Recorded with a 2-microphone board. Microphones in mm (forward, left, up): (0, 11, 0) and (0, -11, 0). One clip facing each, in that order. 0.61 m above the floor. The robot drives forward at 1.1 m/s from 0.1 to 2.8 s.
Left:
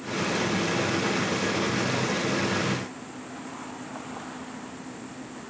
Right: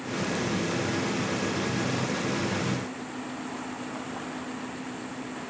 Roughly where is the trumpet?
I don't hear a trumpet.